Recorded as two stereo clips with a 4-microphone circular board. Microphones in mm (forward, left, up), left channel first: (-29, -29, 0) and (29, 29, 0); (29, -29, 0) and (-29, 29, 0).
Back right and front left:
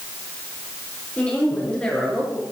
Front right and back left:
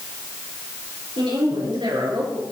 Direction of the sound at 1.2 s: 145° left.